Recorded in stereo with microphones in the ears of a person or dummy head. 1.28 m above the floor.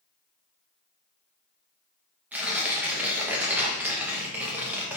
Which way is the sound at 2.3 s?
15° right (ahead or behind).